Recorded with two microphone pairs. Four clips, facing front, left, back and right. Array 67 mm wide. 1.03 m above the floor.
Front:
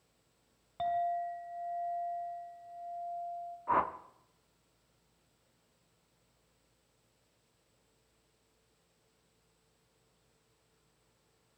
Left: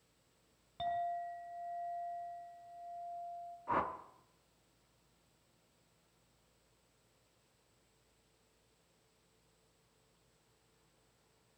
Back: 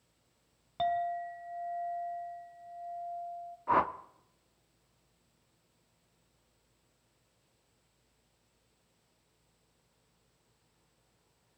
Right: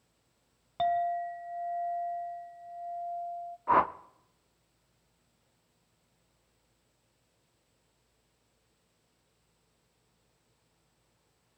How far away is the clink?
About 2 m.